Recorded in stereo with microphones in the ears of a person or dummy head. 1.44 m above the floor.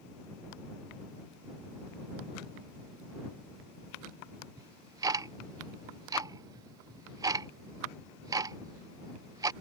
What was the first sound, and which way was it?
Ticking, 20° right (ahead or behind).